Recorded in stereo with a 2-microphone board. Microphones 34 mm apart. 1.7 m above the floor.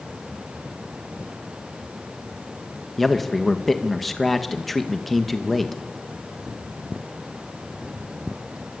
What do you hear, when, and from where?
3.0 s a man speaking: 5° left (ahead or behind), 2 m